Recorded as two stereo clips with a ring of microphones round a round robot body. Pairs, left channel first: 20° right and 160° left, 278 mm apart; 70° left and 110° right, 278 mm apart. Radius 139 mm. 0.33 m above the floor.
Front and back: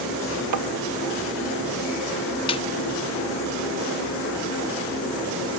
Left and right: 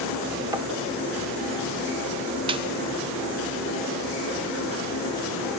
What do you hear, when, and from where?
0.5 s tapping: 170° left, 0.7 m
2.5 s a snare drum: 65° right, 0.5 m